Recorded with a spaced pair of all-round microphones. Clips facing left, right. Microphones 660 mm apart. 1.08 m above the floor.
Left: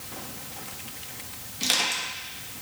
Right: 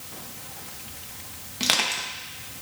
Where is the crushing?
75° right (ahead or behind), 1.2 m.